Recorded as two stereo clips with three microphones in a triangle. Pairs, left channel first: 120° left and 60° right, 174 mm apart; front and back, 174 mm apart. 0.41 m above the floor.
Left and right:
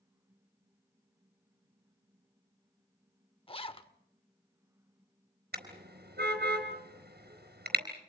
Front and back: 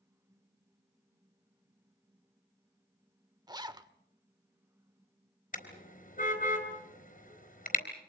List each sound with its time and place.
3.5 s a zipper: 135° left, 0.8 m
5.5 s a car horn: 40° right, 4 m